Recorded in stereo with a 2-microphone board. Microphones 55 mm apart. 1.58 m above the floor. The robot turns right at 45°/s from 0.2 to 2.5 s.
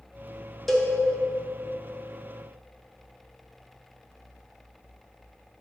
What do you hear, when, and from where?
0.7 s a cowbell: centre (ahead or behind), 0.9 m; by 0.9 s 10° left (ahead or behind), 0.9 m